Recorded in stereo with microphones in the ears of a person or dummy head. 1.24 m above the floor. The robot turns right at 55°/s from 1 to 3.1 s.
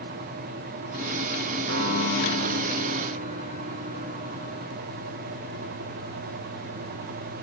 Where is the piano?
115° right, 0.9 m; by 4.7 s 40° right, 0.9 m.